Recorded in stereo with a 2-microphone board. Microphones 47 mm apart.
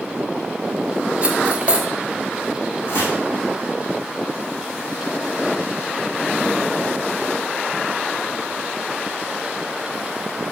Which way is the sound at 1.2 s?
25° right (ahead or behind).